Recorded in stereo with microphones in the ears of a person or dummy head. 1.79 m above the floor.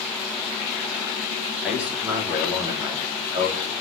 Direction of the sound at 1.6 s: Centre (ahead or behind).